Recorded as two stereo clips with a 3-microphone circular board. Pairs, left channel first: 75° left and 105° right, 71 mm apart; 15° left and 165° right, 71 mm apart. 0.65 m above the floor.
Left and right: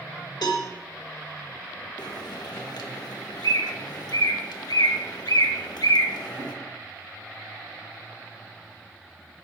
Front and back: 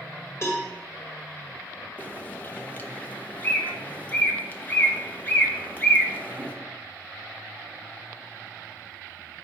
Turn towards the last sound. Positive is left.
turn(degrees=80)